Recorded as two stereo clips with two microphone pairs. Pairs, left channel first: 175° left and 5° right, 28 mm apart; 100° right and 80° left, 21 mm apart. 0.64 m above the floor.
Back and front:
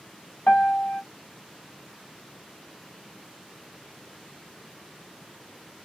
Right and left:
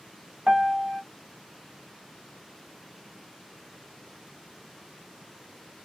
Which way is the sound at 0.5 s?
145° left.